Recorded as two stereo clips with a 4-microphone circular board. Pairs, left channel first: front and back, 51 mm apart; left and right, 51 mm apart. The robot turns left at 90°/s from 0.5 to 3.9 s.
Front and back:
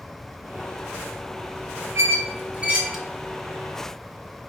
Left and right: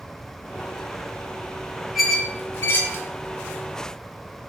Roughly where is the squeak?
Behind.